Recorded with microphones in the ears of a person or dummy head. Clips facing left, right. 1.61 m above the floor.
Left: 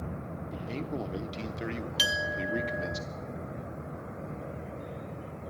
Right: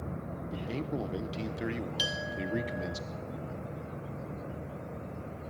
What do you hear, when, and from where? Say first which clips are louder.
0.5 s a man speaking: right 1 dB; 5° right (ahead or behind), 0.9 m
2.0 s a clink: left 2 dB; 25° left (ahead or behind), 1.0 m